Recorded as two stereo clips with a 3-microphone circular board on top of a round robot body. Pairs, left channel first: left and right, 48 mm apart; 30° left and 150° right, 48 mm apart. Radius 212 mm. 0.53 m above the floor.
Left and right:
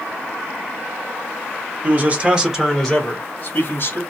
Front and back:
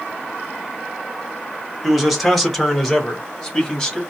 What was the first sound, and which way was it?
A man speaking, 60° right.